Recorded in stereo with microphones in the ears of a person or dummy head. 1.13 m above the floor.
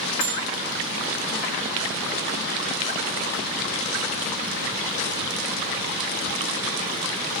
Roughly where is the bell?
Centre.